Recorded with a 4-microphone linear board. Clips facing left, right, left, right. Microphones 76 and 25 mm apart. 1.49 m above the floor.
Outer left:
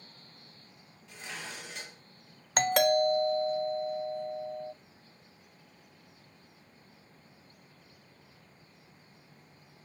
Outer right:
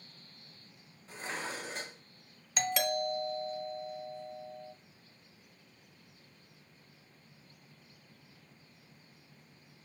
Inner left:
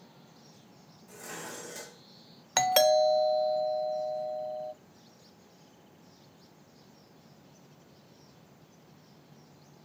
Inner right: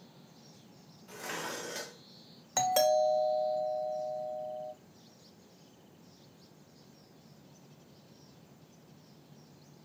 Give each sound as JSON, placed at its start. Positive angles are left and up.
{"t": 1.1, "sound": "dishes clattering", "side_deg": -40, "distance_m": 0.8}
{"t": 2.6, "sound": "a doorbell", "side_deg": 55, "distance_m": 0.5}